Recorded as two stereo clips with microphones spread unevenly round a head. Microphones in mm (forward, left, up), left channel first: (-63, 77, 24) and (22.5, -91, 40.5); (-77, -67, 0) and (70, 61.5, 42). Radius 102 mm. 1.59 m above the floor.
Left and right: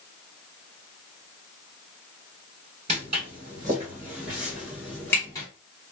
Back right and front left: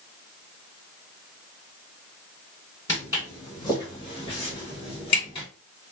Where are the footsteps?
55° right, 1.8 m; by 5.5 s 170° left, 1.6 m.